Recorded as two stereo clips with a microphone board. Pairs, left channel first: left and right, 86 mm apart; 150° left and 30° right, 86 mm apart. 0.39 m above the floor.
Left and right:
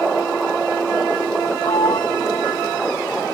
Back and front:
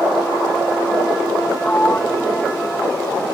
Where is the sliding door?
80° left.